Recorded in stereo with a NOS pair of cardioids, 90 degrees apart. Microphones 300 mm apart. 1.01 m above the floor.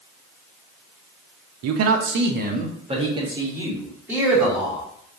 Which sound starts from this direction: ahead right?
A man speaking, at 1.6 s.